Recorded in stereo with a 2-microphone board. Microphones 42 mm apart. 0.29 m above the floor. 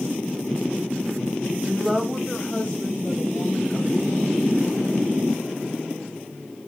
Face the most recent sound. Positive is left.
turn(degrees=60)  # may be behind; listen again after turning